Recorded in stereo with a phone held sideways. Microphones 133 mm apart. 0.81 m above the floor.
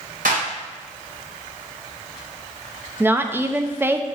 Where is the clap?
75° right (ahead or behind), 3.5 m.